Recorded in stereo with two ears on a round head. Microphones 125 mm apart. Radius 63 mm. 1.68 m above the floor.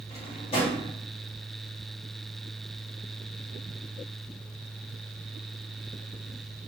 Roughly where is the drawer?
Left.